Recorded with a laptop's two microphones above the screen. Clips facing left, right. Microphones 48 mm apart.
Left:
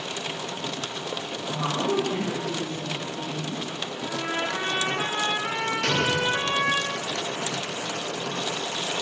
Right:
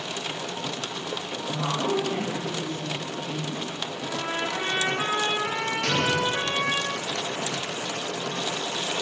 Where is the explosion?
70° left (ahead or behind), 1.5 m.